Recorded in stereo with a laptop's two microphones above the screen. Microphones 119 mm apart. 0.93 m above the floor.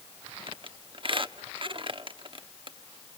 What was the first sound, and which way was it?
A squeak, 45° right (ahead or behind).